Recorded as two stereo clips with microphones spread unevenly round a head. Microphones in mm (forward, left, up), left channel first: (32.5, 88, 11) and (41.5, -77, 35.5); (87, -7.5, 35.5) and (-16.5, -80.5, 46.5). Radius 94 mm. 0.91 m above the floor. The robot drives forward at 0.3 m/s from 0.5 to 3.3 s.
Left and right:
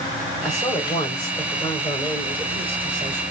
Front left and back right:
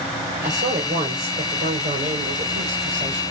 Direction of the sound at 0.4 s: 170° left.